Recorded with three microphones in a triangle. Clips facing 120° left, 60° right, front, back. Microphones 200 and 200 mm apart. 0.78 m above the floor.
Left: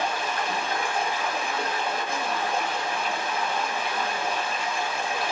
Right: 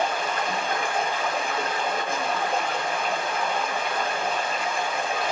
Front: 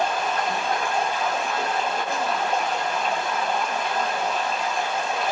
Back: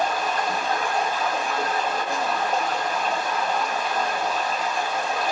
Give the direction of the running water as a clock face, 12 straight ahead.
3 o'clock.